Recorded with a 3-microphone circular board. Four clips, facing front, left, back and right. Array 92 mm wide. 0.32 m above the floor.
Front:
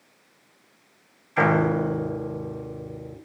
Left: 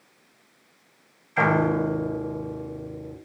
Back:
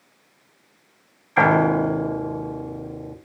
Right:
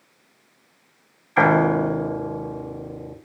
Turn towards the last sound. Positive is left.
turn(degrees=-135)